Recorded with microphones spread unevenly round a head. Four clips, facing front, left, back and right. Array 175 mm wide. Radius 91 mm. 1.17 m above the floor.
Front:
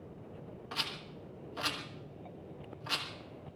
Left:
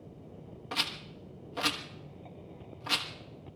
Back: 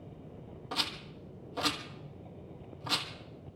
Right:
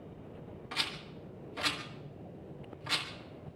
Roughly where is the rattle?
Behind left.